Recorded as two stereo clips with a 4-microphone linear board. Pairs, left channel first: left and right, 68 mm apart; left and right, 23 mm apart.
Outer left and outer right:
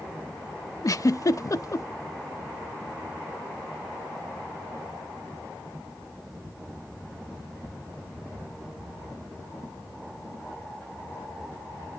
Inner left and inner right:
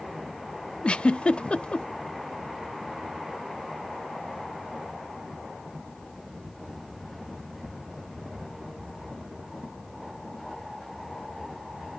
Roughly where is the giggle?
Left.